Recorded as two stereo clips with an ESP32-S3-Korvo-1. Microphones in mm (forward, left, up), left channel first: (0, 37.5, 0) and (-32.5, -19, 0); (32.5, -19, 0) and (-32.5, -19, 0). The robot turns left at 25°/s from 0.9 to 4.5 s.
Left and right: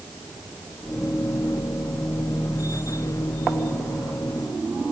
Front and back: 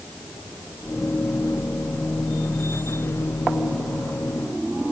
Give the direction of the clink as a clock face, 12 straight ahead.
No clink in this recording.